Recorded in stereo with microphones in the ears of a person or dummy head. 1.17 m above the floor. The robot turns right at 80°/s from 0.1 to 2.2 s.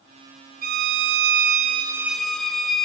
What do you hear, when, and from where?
0.6 s a violin: 125° right, 0.8 m; by 2.9 s 5° left, 0.8 m